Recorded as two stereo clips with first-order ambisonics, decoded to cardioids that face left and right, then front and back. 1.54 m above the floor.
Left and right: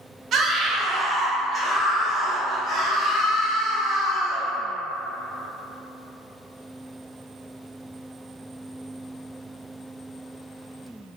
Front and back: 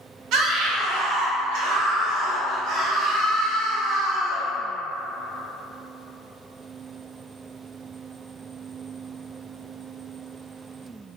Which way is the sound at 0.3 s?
145° right.